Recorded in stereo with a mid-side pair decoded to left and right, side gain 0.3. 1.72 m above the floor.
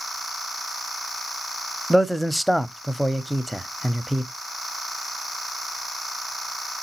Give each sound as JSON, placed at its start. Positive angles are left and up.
{"t": 1.9, "sound": "a man speaking", "azimuth_deg": 0, "distance_m": 0.7}